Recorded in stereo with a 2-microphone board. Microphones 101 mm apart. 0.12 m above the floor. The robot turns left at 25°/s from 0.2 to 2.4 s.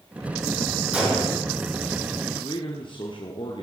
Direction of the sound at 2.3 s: 50° left (ahead or behind).